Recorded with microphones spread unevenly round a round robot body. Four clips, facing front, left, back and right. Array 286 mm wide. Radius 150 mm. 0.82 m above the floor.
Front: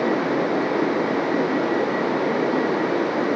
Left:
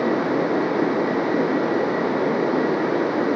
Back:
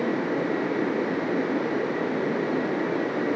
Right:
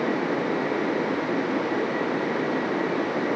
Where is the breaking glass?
I don't hear breaking glass.